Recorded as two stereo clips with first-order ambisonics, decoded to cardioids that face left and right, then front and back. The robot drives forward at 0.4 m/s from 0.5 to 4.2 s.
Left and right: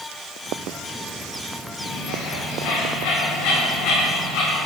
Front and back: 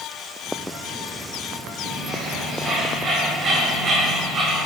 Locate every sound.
1.8 s a bird: 105° left, 3.5 m; by 4.6 s 120° left, 4 m